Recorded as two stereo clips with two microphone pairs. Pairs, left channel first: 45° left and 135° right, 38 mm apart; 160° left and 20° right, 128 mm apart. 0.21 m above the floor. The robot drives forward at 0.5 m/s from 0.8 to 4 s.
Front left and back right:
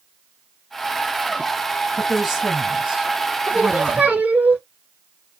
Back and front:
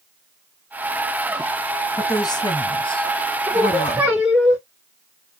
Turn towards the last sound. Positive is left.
turn(degrees=-105)